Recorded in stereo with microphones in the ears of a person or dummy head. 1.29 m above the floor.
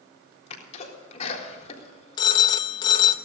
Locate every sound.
0.5 s a sneeze: 35° left (ahead or behind), 3.5 m
2.2 s a phone ringing: 25° left (ahead or behind), 0.8 m